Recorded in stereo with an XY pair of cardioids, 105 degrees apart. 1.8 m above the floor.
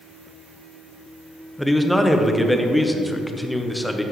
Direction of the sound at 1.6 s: Straight ahead.